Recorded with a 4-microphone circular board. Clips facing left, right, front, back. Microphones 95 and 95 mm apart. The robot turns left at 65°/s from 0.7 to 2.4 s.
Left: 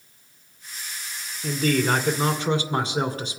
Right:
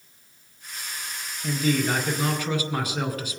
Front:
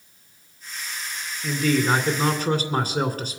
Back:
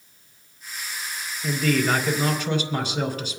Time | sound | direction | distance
1.4 | a man speaking | 95° left | 2.5 m